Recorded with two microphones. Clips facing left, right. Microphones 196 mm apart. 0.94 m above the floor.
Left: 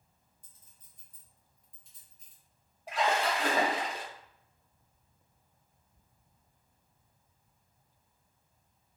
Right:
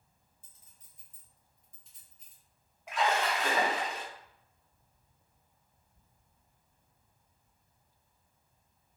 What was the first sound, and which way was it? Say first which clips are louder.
A clink: even; 60° left (ahead or behind).